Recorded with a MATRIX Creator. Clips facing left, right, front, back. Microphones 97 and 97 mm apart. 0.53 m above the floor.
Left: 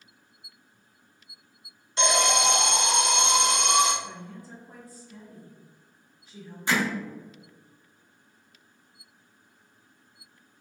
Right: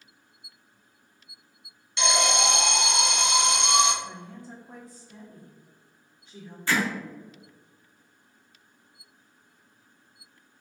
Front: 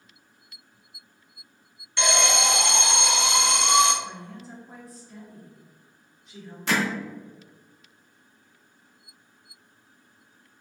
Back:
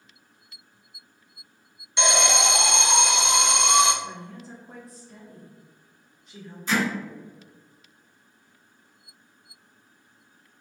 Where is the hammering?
15° left, 0.7 m.